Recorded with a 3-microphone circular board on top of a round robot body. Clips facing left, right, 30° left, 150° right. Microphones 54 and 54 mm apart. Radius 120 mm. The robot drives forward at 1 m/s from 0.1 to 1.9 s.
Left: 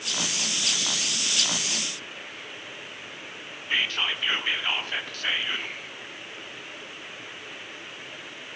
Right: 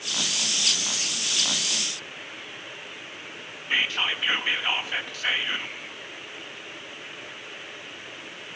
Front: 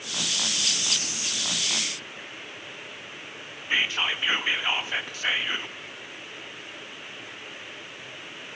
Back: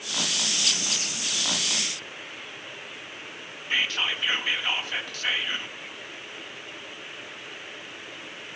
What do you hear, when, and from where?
3.7 s whispering: 20° right, 0.6 m